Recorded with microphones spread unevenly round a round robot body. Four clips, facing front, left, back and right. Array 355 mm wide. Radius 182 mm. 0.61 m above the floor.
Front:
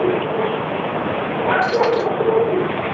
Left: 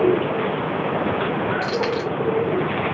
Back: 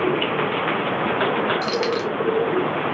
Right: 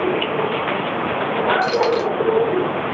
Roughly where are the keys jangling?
Behind.